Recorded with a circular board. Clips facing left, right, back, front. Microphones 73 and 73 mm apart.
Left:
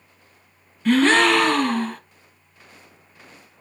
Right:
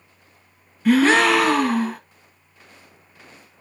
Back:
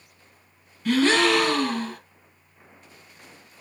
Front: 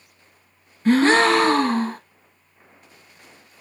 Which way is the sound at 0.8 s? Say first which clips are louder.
Right 1 dB, front 4 dB; 10° right.